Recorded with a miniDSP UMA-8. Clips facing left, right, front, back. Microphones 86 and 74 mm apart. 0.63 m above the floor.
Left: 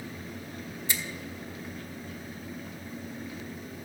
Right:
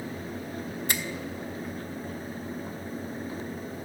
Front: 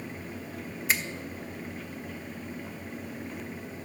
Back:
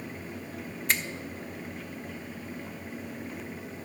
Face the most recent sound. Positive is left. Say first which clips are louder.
# right 2 dB, even
turn(degrees=-85)